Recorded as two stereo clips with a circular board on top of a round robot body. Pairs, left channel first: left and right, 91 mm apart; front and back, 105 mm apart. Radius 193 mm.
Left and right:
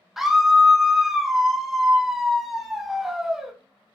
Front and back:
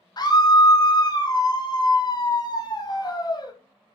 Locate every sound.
0.2 s a scream: 5° right, 0.8 m